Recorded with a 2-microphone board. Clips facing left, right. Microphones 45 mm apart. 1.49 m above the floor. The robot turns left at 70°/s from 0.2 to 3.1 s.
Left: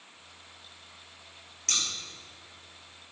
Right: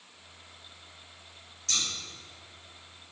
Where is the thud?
No thud in this recording.